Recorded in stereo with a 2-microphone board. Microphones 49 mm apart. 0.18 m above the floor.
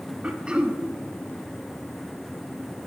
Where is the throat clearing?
20° right (ahead or behind), 0.5 m.